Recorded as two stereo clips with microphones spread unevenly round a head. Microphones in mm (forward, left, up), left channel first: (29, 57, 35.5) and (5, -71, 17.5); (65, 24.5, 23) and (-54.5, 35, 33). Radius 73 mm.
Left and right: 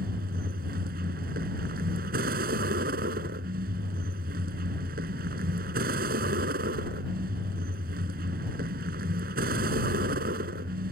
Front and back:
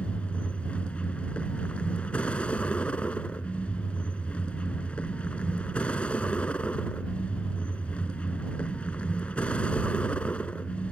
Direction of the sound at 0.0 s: 90° right.